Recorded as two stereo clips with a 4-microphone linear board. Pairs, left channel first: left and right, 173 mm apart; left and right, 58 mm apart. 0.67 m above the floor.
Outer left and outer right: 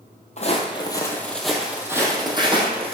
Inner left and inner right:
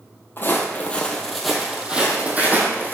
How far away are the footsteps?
About 1.4 m.